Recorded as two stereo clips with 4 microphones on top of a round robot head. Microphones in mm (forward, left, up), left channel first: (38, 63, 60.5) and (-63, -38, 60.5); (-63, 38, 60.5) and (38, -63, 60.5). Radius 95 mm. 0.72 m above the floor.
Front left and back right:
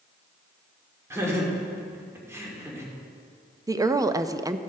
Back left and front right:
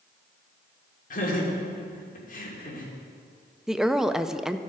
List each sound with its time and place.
1.1 s laughter: 155° left, 2.5 m
3.7 s a woman speaking: 125° right, 0.6 m